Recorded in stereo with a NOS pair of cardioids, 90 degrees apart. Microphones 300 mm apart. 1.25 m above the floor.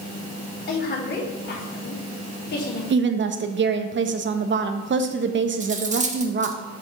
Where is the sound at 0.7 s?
35° left, 3.5 m.